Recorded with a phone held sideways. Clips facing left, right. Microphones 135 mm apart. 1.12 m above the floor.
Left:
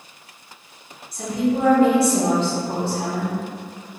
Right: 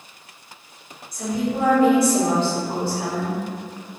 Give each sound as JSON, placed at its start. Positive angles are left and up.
{"t": 1.1, "sound": "a woman speaking", "side_deg": 30, "distance_m": 1.6}